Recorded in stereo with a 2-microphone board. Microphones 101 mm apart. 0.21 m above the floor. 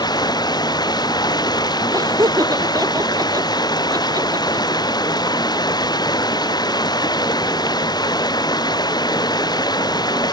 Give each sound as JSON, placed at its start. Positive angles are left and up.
{"t": 0.0, "sound": "running water", "side_deg": 45}
{"t": 1.9, "sound": "laughter", "side_deg": -35}